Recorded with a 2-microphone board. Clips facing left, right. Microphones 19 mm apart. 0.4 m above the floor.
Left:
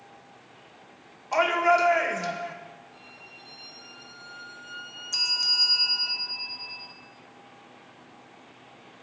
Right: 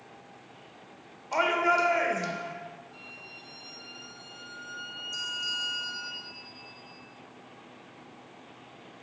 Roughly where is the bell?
Left.